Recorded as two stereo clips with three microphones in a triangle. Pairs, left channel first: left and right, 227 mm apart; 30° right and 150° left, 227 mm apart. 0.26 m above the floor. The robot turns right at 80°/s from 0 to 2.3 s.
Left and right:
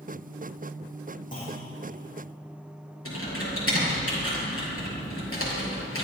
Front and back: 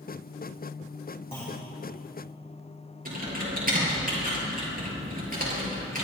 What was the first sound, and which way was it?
A clunk, 35° left.